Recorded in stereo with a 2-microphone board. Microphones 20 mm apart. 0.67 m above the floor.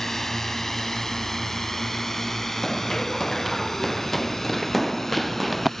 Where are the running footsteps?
20° left (ahead or behind); by 5.7 s 5° left (ahead or behind).